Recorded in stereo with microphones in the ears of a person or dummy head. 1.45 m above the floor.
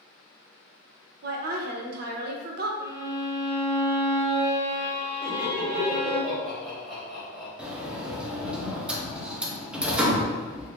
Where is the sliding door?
5° right (ahead or behind), 0.6 m.